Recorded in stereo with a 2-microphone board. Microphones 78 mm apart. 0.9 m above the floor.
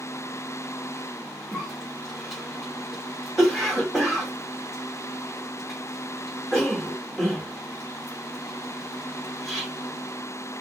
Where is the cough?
Centre (ahead or behind), 2.5 m.